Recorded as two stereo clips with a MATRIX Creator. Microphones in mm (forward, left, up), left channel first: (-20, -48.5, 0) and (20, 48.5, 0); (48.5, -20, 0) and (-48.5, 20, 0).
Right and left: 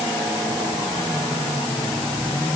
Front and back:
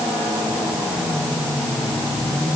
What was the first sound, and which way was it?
Only background noise.